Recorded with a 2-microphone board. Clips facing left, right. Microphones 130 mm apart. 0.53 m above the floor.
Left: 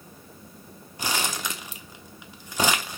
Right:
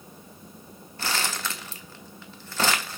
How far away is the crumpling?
About 0.7 m.